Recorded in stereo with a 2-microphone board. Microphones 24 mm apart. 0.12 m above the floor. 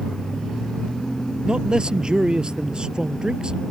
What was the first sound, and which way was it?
A man speaking, 40° right (ahead or behind).